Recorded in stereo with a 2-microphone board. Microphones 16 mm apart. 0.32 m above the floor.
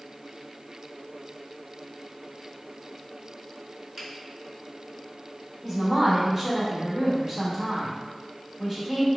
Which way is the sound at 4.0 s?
20° right (ahead or behind).